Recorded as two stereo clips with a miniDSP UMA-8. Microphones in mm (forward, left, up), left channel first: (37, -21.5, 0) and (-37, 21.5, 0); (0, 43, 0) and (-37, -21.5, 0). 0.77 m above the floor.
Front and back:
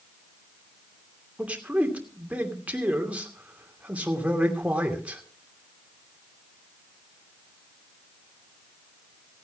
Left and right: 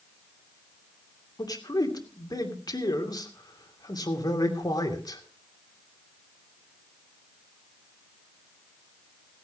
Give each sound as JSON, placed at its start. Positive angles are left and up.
{"t": 1.4, "sound": "a man speaking", "azimuth_deg": 75, "distance_m": 2.5}